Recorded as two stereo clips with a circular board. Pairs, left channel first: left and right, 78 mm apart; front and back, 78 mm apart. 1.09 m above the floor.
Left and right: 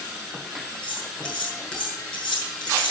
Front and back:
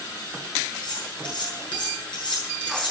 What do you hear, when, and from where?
0.8 s cutlery clinking: 10° left, 8 m